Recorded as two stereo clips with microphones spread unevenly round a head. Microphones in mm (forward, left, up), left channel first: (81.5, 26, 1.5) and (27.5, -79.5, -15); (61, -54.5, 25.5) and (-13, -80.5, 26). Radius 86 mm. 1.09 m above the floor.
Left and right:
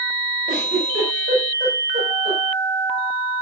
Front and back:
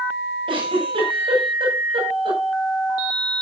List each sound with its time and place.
0.5 s a giggle: 160° right, 8.5 m